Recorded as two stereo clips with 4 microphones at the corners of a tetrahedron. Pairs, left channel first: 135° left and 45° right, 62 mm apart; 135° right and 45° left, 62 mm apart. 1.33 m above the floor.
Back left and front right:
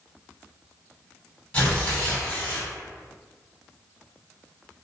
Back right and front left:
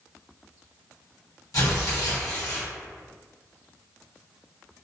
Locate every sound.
1.5 s tearing paper: 160° right, 1.4 m